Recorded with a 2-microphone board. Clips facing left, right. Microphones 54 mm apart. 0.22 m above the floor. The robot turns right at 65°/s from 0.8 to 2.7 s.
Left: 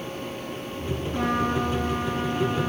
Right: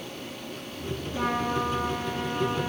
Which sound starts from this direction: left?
A trumpet, at 1.1 s.